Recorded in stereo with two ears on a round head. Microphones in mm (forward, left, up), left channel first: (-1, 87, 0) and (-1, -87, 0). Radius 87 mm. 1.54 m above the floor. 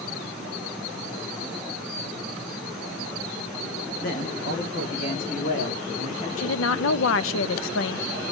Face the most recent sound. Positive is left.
turn(degrees=75)  # may be behind; listen again after turning